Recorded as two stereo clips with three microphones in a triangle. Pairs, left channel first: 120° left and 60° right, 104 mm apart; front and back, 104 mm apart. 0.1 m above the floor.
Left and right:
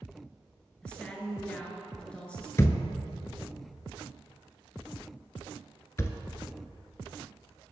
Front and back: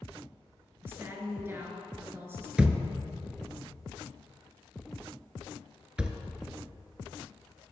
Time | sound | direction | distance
0.8 | a woman speaking | straight behind | 1.7 m
2.6 | a thud | 110° left | 0.8 m